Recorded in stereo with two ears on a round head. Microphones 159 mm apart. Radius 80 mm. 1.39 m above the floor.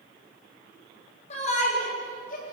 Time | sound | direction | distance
1.3 | a shout | 40° left (ahead or behind) | 8.5 m